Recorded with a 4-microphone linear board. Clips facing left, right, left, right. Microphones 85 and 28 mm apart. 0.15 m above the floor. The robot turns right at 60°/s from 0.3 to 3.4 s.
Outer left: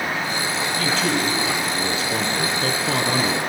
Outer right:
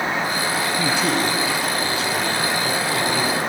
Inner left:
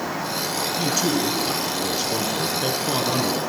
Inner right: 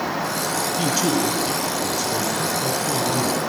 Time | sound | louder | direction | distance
0.8 | a man speaking | even, inner right 1 dB | 35° right | 1.9 m